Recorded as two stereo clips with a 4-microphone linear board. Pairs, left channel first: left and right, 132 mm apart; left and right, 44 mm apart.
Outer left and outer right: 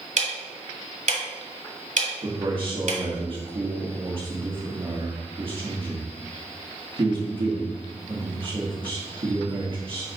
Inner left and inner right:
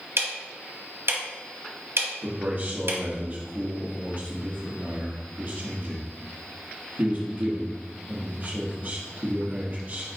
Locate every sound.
0.2 s ticking: 70° right (ahead or behind), 1.4 m
2.2 s a man speaking: 45° right (ahead or behind), 1.1 m